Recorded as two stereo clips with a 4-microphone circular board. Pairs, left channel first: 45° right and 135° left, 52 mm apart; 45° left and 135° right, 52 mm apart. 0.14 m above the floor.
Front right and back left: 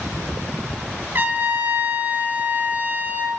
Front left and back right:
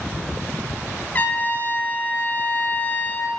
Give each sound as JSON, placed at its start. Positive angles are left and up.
{"t": 1.1, "sound": "a trumpet", "azimuth_deg": 100, "distance_m": 1.7}